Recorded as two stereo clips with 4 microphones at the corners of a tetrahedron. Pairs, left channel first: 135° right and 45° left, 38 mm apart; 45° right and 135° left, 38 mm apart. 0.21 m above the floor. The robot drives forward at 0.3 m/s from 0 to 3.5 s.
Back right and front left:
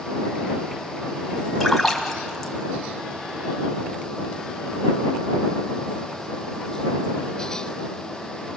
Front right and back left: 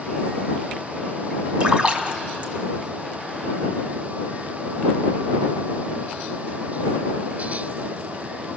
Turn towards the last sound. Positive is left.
turn(degrees=155)